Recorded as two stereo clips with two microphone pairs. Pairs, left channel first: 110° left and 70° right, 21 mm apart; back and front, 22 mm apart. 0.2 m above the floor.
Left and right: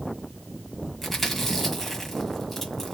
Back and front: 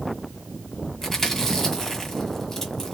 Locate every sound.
1.0 s chewing: 155° left, 1.5 m